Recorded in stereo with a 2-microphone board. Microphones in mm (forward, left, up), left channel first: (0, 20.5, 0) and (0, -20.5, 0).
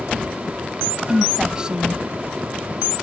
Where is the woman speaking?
20° right (ahead or behind).